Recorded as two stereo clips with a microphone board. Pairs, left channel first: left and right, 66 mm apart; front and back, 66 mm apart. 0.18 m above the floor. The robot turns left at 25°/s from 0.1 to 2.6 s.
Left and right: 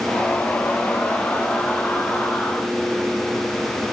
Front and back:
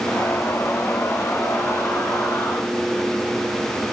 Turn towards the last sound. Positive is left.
No sound to turn to.